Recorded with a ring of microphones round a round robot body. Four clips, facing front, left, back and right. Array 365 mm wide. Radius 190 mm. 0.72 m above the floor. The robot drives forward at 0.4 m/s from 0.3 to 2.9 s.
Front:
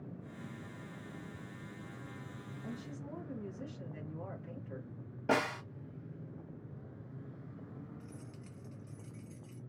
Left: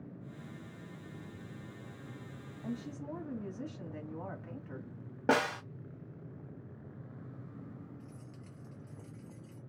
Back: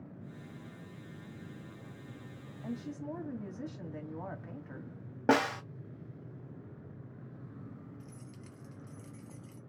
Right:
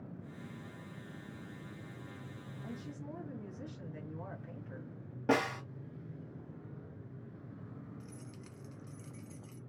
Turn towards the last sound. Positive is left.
turn(degrees=-110)